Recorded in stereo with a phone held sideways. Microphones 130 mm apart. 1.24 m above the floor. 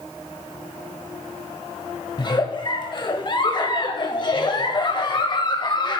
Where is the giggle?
35° left (ahead or behind), 1.3 m.